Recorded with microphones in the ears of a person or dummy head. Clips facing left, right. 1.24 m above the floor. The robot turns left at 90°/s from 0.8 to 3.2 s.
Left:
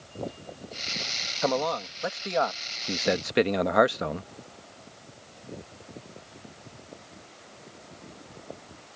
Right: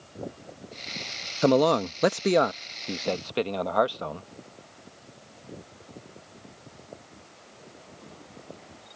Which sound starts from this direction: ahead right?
A man speaking, at 1.4 s.